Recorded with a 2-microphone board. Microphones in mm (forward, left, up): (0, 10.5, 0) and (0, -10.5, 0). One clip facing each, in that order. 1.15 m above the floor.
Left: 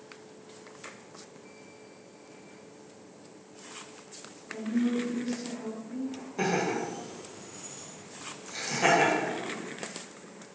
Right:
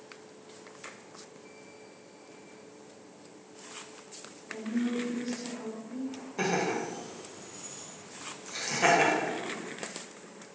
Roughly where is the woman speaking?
Right.